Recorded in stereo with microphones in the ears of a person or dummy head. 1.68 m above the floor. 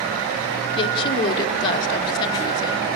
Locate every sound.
0.8 s a woman speaking: 25° left (ahead or behind), 1.8 m